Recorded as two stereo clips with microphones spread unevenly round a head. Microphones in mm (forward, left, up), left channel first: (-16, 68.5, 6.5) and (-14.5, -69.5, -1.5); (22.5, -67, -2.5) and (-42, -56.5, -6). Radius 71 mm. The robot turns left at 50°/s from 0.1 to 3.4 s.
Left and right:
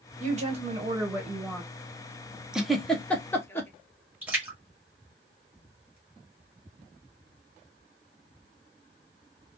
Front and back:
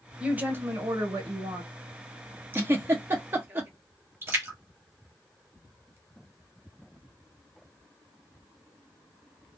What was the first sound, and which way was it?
A woman speaking, 115° right.